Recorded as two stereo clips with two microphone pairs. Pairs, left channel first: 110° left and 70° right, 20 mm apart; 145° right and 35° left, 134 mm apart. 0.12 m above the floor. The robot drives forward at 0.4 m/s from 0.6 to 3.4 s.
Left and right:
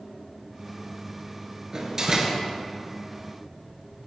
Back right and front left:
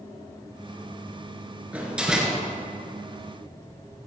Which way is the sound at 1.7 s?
40° right.